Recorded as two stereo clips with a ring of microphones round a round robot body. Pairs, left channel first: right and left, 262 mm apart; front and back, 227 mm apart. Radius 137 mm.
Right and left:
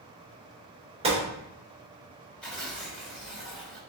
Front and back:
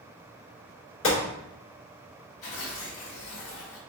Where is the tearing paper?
5° right, 1.9 m.